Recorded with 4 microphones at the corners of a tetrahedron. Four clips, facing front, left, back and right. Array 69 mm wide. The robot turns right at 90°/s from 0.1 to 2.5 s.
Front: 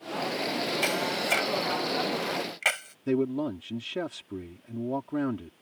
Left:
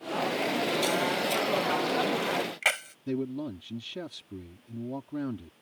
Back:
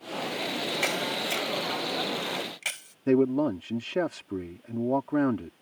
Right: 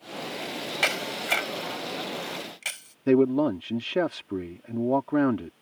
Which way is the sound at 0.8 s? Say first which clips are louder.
Left 1 dB, even; 105° right.